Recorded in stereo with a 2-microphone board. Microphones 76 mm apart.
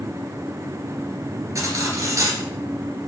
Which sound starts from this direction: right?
Cutlery clinking, at 1.6 s.